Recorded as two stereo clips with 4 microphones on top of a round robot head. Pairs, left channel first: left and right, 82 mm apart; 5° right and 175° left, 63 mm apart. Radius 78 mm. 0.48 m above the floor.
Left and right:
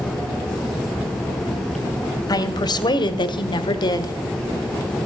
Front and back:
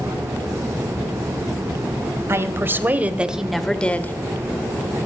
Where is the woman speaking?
125° left, 2.5 m; by 4.1 s 50° left, 1.6 m.